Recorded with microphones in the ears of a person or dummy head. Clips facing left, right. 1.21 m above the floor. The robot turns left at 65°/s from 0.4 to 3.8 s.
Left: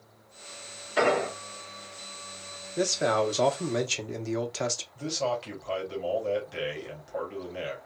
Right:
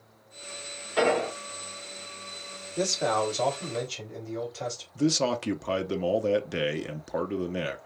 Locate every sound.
1.0 s an explosion: 5° left (ahead or behind), 2 m; by 1.3 s 25° left (ahead or behind), 2 m
2.8 s a man speaking: 175° left, 1.0 m; by 4.8 s 105° left, 1.0 m
5.0 s a man speaking: 60° right (ahead or behind), 0.5 m